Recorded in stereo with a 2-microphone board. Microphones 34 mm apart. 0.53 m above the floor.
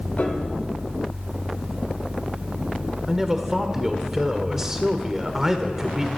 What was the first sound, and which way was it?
A piano, 50° left (ahead or behind).